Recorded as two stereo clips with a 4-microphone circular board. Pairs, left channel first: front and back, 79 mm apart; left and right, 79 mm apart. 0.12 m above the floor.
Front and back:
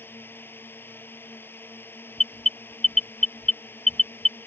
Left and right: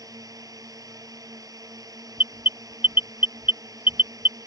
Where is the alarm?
75° right.